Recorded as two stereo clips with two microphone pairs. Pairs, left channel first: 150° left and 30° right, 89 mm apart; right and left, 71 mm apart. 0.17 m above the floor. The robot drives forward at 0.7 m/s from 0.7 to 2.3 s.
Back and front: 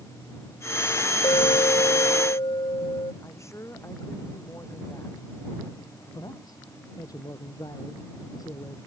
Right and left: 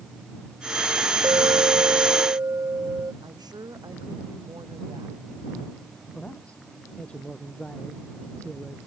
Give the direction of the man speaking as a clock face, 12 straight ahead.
6 o'clock.